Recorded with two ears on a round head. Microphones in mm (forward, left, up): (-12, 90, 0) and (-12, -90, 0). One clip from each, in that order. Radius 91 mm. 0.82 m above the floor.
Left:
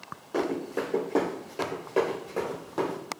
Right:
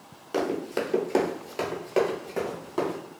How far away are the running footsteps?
About 1.3 m.